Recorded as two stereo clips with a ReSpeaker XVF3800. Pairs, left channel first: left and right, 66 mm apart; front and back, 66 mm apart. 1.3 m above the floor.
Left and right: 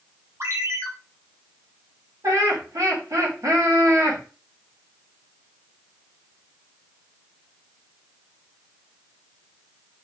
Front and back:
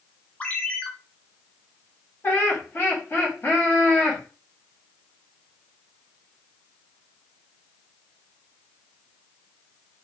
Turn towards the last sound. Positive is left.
turn(degrees=-55)